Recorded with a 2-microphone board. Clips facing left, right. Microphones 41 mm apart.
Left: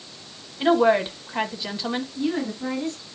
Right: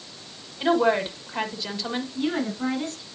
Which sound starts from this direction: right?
A woman speaking, at 2.1 s.